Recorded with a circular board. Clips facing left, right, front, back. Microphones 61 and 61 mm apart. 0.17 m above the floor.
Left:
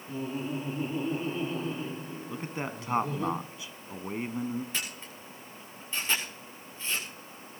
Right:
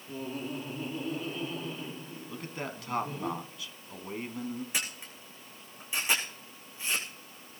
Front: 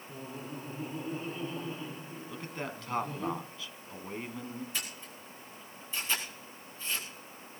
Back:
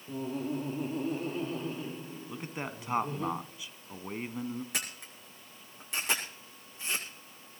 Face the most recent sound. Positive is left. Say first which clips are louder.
# even, back 1 dB
turn(degrees=-165)